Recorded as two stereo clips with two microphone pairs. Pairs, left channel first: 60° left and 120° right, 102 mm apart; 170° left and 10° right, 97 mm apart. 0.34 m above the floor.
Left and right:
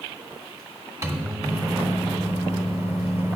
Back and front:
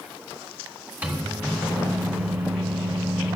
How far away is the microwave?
About 1.3 m.